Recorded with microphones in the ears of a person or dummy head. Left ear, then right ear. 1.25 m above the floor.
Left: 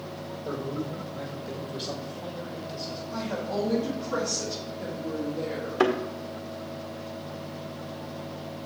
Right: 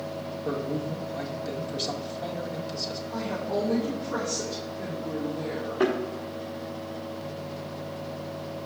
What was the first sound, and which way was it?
A man speaking, 60° right (ahead or behind).